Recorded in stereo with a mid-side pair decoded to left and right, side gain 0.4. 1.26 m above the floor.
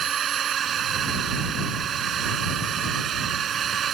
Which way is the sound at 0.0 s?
60° right.